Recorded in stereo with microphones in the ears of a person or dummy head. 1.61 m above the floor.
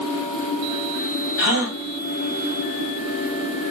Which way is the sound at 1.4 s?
60° left (ahead or behind).